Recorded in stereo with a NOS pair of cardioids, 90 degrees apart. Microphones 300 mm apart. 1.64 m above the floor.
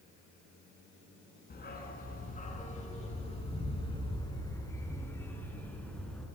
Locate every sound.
1.5 s a dog barking: 30° left, 5 m; by 6.3 s straight ahead, 5.5 m